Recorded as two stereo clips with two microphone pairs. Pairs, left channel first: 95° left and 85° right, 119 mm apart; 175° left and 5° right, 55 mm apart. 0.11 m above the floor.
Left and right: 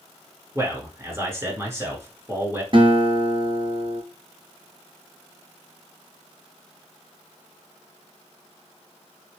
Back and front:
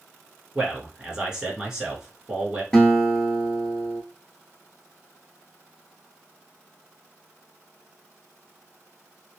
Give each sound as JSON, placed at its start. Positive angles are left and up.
{"t": 0.6, "sound": "a man speaking", "azimuth_deg": -55, "distance_m": 1.1}
{"t": 2.7, "sound": "a guitar", "azimuth_deg": -105, "distance_m": 0.7}